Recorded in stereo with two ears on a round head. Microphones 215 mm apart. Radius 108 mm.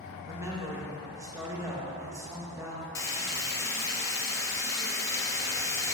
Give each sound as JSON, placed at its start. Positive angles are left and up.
{"t": 0.3, "sound": "a woman speaking", "side_deg": -10, "distance_m": 1.2}
{"t": 3.0, "sound": "frying", "side_deg": 10, "distance_m": 0.7}